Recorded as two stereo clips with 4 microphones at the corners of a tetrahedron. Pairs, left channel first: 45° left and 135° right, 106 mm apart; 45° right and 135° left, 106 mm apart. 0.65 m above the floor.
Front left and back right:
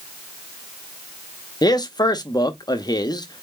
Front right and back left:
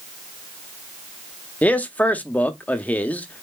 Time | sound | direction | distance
1.6 | a man speaking | 20° left | 0.6 m